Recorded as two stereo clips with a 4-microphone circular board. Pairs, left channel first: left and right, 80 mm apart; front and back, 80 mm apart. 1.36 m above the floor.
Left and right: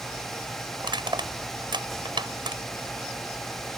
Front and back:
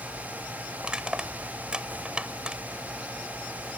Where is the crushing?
100° right.